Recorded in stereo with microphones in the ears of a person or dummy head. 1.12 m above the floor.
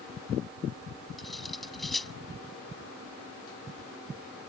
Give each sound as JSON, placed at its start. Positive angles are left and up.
{"t": 1.2, "sound": "cutlery clinking", "side_deg": 0}